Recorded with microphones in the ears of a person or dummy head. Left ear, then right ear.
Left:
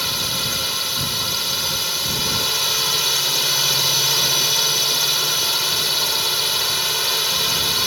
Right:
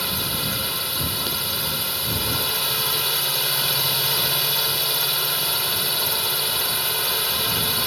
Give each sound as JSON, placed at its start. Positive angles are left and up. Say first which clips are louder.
{"t": 0.0, "sound": "a drone", "louder": "left 4 dB", "side_deg": 5}